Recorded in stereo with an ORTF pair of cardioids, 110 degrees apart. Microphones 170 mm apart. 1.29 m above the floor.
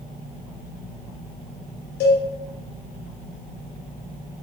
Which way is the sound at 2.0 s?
65° left.